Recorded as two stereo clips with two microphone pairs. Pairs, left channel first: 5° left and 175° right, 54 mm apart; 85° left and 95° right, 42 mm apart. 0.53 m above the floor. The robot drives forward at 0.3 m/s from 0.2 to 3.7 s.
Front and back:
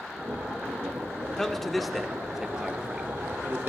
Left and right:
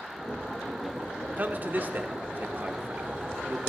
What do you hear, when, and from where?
1.4 s a man speaking: 70° right, 0.9 m; by 3.7 s 125° right, 1.0 m